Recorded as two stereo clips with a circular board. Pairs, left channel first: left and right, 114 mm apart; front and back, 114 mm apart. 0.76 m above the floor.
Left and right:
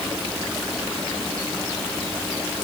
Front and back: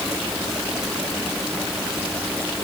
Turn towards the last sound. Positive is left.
No sound to turn to.